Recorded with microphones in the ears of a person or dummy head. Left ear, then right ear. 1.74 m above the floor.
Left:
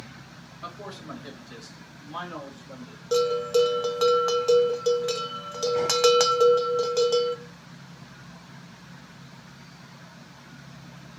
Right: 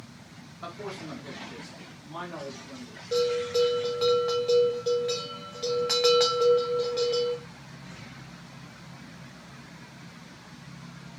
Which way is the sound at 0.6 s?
15° right (ahead or behind).